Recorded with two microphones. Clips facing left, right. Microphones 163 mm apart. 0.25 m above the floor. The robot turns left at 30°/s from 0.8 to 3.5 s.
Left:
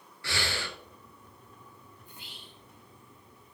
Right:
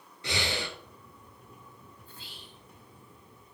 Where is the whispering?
15° left (ahead or behind), 2.5 m; by 2.6 s 30° left (ahead or behind), 2.5 m.